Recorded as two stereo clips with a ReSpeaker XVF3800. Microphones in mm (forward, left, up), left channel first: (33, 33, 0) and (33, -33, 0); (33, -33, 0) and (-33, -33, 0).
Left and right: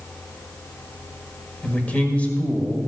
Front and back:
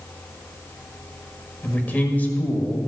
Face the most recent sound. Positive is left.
turn(degrees=40)